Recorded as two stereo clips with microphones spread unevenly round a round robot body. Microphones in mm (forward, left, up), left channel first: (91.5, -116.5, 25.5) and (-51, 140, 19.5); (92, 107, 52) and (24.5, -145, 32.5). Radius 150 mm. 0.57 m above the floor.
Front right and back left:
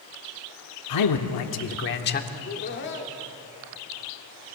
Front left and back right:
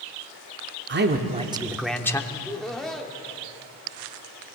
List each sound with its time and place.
0.9 s a man speaking: 70° right, 1.3 m; by 2.2 s 5° right, 1.3 m
2.3 s laughter: 15° right, 1.5 m